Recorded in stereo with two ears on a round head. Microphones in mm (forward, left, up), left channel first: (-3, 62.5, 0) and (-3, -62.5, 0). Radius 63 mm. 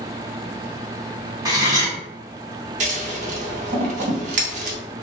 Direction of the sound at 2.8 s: 55° right (ahead or behind).